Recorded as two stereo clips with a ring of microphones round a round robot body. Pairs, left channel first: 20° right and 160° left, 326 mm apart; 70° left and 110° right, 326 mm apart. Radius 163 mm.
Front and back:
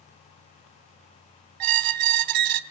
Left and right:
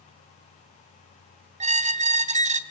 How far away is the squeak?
About 1.2 m.